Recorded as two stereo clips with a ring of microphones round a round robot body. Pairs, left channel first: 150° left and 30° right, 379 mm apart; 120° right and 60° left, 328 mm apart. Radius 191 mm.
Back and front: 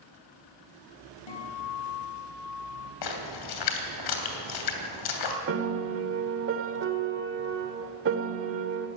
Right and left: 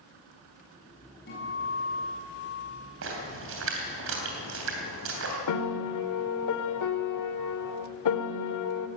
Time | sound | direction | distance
1.3 | a guitar | 175° left | 5.5 m
3.0 | a splash | 120° left | 3 m
5.5 | a piano | 90° right | 1.4 m